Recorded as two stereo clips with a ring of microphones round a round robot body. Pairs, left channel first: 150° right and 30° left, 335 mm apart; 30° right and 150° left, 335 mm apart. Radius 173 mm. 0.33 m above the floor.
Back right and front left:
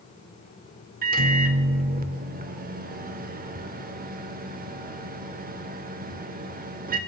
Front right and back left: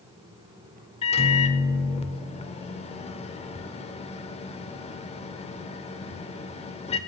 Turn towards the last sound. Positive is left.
turn(degrees=15)